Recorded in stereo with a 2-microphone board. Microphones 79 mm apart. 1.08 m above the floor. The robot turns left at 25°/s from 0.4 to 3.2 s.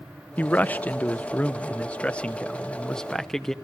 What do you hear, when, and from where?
0.4 s a man speaking: 20° left (ahead or behind), 0.7 m; by 3.5 s 5° left (ahead or behind), 0.7 m